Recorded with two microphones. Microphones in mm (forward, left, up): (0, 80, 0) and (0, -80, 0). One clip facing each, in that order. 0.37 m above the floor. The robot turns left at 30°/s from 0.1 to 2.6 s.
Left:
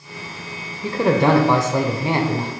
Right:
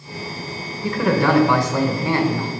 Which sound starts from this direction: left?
A man speaking, at 0.8 s.